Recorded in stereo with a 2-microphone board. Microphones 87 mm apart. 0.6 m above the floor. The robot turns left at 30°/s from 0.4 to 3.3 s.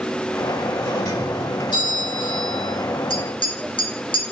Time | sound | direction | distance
0.8 | a doorbell | 135° left | 2.5 m
3.1 | tapping | 80° left | 1.9 m